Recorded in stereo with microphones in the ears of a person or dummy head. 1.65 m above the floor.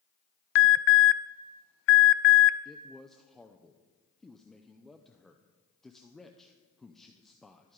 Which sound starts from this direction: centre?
A man speaking, at 2.6 s.